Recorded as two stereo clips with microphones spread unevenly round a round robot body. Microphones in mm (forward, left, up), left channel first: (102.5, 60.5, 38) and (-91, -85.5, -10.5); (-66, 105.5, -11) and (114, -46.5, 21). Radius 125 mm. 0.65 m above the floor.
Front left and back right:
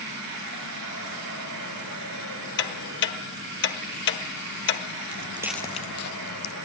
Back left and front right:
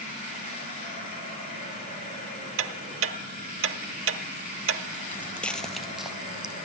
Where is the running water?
160° right, 8 m.